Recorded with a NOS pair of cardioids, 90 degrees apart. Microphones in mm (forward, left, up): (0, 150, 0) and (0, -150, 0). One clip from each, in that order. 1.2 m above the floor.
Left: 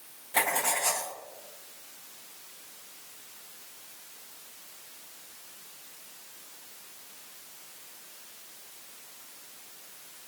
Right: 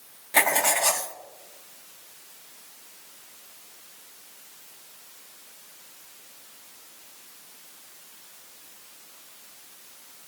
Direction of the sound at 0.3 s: 30° right.